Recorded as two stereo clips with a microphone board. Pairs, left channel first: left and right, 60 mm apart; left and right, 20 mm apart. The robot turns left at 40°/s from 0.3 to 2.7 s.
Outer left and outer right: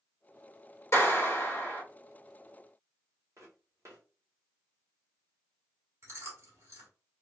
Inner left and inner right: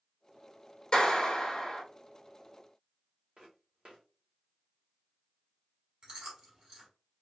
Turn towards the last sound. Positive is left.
turn(degrees=-45)  # may be behind; listen again after turning